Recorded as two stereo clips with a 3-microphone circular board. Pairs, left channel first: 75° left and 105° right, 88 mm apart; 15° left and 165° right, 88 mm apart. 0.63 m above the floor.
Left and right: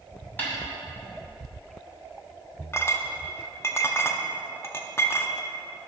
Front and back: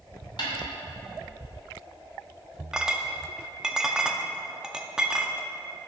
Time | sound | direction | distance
0.4 | a snare drum | 5° left | 2.5 m
2.7 | a clink | 115° left | 0.6 m